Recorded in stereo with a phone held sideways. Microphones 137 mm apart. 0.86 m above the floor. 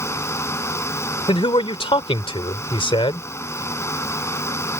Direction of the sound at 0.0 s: 20° left (ahead or behind).